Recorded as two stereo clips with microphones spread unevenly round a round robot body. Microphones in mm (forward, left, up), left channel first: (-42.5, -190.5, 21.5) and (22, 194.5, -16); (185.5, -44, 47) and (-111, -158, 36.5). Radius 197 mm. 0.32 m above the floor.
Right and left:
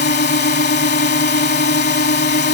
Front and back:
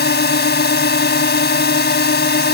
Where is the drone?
35° right.